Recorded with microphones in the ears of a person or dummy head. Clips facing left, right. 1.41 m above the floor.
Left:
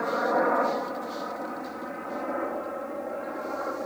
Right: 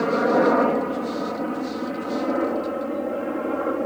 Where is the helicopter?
45° right (ahead or behind); by 3.9 s 55° right (ahead or behind).